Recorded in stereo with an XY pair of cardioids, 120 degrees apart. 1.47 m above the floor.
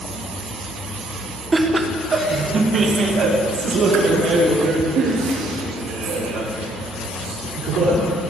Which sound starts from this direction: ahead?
Laughter, at 1.5 s.